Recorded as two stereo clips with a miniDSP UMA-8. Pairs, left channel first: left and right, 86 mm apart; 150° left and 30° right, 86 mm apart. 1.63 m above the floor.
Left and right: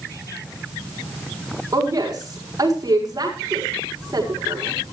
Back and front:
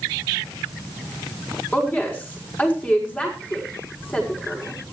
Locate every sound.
1.7 s a woman speaking: 140° right, 6.5 m